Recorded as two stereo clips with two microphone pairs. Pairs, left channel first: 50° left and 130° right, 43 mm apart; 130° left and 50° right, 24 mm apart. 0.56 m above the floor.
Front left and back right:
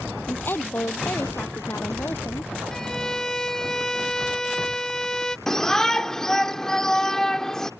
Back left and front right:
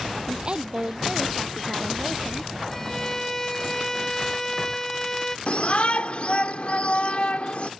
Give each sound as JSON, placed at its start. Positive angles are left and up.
{"t": 0.3, "sound": "a woman speaking", "azimuth_deg": 10}
{"t": 2.7, "sound": "a violin", "azimuth_deg": 100}
{"t": 5.5, "sound": "a shout", "azimuth_deg": 120}